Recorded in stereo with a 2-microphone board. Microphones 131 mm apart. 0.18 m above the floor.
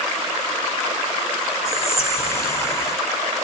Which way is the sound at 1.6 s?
20° left (ahead or behind).